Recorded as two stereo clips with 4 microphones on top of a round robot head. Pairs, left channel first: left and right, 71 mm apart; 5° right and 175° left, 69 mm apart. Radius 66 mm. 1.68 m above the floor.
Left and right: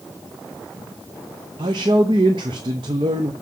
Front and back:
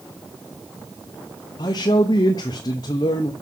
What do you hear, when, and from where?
1.6 s a man speaking: 50° right, 0.8 m